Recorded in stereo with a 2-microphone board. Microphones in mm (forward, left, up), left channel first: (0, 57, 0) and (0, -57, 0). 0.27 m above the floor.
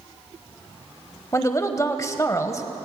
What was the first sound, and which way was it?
A woman speaking, 30° left (ahead or behind).